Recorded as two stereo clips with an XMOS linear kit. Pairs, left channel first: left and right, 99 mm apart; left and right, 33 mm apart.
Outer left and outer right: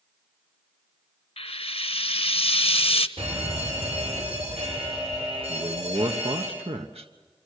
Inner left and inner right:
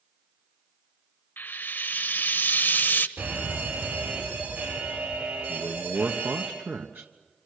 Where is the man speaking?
85° right, 1.3 m.